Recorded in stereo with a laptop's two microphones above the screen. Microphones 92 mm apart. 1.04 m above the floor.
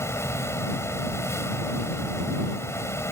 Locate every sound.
0.0 s a fan: 30° left (ahead or behind)